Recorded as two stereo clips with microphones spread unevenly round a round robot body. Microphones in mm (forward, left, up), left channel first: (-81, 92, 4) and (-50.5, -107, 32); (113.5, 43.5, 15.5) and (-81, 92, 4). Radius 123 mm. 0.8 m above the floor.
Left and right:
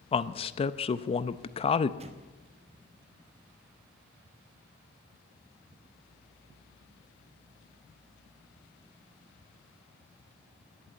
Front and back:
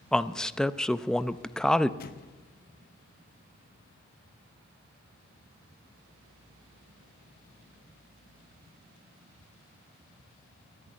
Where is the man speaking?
75° left, 0.5 m.